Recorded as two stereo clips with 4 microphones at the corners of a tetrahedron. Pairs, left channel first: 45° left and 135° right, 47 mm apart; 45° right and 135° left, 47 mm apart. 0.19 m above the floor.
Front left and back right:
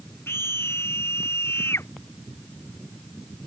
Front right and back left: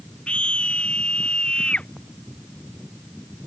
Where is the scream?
20° left.